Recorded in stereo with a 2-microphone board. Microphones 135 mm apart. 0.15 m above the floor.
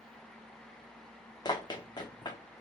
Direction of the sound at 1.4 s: 35° left (ahead or behind).